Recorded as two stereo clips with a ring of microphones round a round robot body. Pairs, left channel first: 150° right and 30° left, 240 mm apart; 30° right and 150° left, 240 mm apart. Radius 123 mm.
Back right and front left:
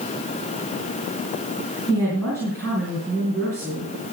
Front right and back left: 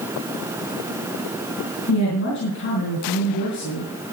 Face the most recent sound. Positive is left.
turn(degrees=-70)